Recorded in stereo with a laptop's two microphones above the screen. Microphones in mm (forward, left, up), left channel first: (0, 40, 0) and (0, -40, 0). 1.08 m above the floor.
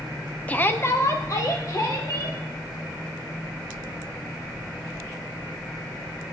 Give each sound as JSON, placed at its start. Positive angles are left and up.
{"t": 0.5, "sound": "a shout", "side_deg": 20, "distance_m": 0.6}